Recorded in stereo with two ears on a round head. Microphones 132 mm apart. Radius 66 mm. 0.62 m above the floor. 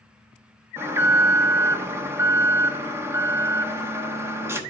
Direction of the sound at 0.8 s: 15° right (ahead or behind).